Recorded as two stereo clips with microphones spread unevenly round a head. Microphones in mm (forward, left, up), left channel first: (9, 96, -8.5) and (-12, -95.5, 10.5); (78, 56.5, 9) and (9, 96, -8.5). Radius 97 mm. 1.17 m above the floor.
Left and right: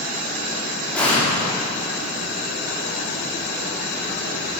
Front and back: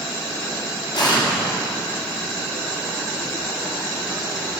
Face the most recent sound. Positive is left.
turn(degrees=0)